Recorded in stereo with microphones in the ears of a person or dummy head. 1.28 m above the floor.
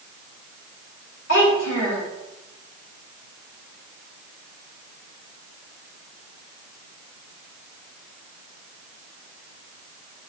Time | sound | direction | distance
1.3 | a child speaking | 60° left (ahead or behind) | 3 m